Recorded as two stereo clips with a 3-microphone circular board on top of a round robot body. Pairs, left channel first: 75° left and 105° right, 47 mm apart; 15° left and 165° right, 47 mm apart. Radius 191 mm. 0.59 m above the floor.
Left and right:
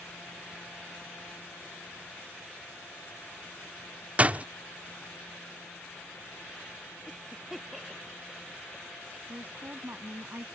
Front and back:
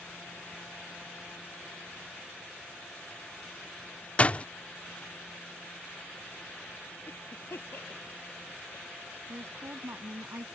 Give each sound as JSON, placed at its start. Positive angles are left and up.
{"t": 4.2, "sound": "a door slam", "azimuth_deg": -45}
{"t": 7.1, "sound": "a cough", "azimuth_deg": -15}
{"t": 9.3, "sound": "a woman speaking", "azimuth_deg": -140}